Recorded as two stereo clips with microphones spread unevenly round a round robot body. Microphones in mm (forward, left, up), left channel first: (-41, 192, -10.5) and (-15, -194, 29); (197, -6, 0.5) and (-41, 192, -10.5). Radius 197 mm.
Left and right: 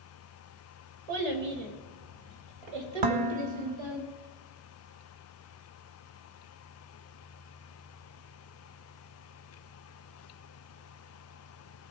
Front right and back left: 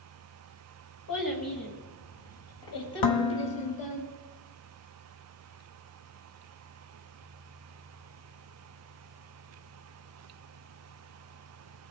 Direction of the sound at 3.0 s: 50° right.